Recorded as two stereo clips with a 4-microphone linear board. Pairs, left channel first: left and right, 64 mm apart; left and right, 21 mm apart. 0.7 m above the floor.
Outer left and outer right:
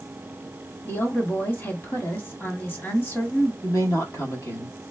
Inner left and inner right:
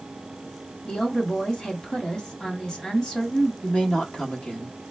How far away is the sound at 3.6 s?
About 1.4 m.